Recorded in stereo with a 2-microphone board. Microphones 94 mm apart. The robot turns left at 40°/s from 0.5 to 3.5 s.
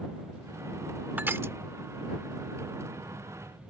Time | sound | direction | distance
1.2 | crushing | 20° right (ahead or behind) | ?